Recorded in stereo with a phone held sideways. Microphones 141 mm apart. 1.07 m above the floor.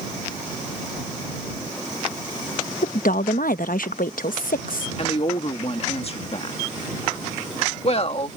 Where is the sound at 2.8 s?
80° left.